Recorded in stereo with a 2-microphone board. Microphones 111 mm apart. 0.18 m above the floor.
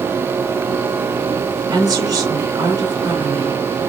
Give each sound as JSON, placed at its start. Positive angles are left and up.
{"t": 1.7, "sound": "a woman speaking", "side_deg": -40, "distance_m": 2.5}